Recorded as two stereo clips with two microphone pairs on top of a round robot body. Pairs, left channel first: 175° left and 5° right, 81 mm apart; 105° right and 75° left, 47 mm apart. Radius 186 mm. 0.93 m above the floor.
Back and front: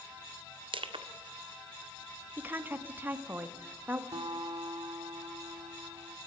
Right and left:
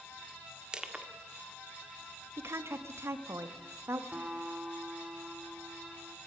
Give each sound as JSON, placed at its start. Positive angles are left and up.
{"t": 0.7, "sound": "crushing", "azimuth_deg": 0, "distance_m": 1.7}
{"t": 2.4, "sound": "a woman speaking", "azimuth_deg": 55, "distance_m": 2.5}
{"t": 4.1, "sound": "a guitar", "azimuth_deg": 15, "distance_m": 2.0}